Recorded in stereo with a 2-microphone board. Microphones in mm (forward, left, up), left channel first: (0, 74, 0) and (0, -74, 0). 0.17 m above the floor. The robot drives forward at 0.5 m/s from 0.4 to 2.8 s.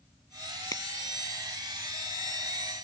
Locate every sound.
0.7 s a finger snap: 20° left (ahead or behind)